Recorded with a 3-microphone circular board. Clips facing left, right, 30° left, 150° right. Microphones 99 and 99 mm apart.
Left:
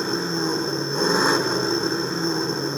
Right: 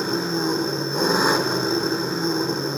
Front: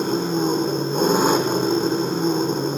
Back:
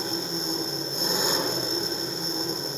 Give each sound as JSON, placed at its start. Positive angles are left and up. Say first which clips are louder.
{"t": 0.0, "sound": "an engine running", "louder": "right 1 dB, front 11 dB", "azimuth_deg": -5, "distance_m": 2.5}